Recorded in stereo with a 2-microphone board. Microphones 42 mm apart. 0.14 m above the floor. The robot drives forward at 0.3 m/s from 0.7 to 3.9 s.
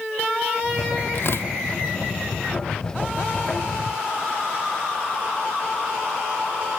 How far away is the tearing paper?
About 0.7 m.